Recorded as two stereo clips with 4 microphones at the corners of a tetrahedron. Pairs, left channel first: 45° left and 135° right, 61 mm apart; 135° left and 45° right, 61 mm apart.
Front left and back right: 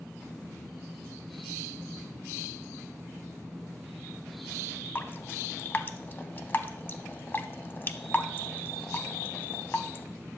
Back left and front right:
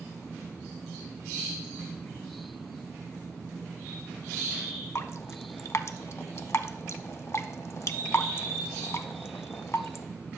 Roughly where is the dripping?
Left.